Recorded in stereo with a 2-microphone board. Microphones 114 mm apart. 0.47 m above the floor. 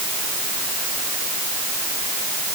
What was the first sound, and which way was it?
Only background noise.